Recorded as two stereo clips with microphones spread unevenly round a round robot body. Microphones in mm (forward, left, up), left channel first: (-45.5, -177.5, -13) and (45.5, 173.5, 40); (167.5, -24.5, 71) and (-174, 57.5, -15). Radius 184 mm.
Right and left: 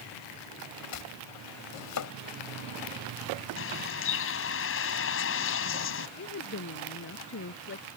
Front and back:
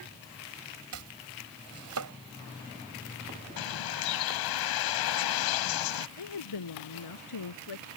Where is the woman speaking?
45° right.